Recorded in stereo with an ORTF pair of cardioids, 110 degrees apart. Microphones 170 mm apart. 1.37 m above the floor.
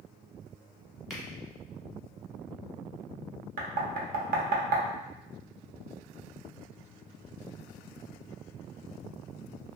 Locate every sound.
1.1 s a finger snap: straight ahead, 0.9 m
3.6 s knocking: 60° right, 0.7 m